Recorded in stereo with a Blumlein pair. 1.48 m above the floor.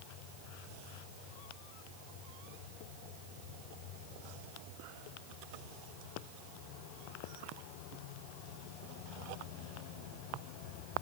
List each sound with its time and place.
Only background noise.